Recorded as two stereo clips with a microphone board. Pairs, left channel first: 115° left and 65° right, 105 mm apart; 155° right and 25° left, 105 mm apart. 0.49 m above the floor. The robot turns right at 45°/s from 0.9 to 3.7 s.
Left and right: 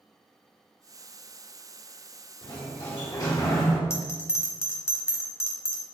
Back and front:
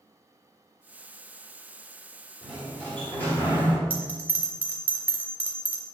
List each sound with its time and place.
2.4 s a sliding door: 105° left, 1.7 m; by 3.8 s 165° left, 1.7 m
3.9 s a bell: 80° left, 1.0 m